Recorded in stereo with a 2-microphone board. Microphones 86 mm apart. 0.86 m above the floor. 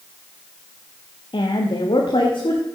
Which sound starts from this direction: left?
A woman speaking, at 1.3 s.